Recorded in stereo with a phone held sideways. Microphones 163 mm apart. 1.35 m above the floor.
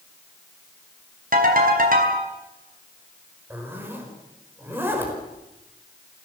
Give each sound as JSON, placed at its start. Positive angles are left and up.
{"t": 1.3, "sound": "a ringtone", "side_deg": -60, "distance_m": 4.5}
{"t": 3.5, "sound": "a zipper", "side_deg": -15, "distance_m": 4.5}